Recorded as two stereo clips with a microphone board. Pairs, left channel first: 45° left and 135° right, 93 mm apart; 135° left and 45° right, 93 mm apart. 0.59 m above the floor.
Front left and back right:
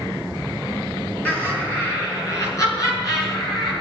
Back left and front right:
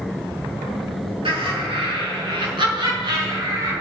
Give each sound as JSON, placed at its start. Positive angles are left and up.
{"t": 1.2, "sound": "laughter", "azimuth_deg": -25, "distance_m": 6.0}